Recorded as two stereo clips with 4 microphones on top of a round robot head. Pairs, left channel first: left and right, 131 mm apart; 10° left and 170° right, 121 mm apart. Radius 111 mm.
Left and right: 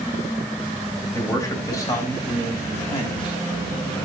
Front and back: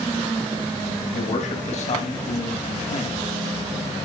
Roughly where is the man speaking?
Ahead.